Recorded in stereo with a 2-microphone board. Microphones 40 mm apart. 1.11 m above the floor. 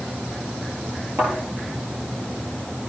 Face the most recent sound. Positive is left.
turn(degrees=-85)